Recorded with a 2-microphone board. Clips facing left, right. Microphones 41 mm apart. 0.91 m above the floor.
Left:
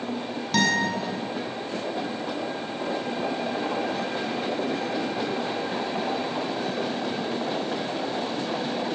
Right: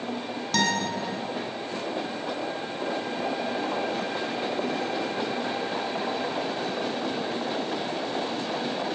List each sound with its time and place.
0.5 s a guitar: 10° left (ahead or behind), 5.5 m